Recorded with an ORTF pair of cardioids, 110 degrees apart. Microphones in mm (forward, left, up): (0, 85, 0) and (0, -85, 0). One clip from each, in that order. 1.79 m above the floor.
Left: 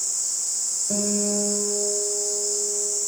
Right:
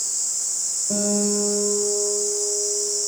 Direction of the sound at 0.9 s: Straight ahead.